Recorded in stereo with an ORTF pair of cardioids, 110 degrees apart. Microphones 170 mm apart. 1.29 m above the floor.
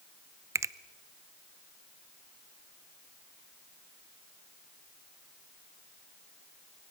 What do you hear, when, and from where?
0.6 s a finger snap: 15° right, 0.6 m